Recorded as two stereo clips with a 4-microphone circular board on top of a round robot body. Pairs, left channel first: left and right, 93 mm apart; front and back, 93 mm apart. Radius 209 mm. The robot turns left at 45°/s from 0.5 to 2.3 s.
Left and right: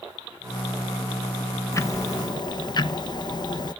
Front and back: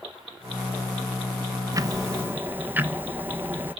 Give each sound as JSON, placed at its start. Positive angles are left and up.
{"t": 1.7, "sound": "ticking", "azimuth_deg": 140, "distance_m": 1.0}